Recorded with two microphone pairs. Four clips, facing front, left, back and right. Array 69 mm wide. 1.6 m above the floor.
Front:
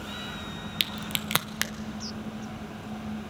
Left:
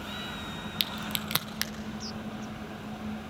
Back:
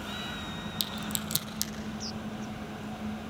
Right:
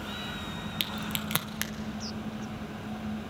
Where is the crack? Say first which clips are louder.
Even, front 5 dB; 5° left, 1.0 m.